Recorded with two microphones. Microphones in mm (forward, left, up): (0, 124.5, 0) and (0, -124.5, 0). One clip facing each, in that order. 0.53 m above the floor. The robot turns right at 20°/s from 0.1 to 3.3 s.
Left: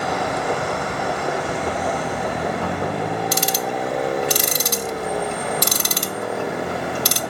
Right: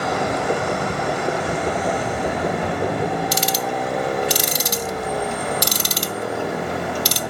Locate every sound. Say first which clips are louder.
3.3 s ticking: even; 60° left (ahead or behind), 0.5 m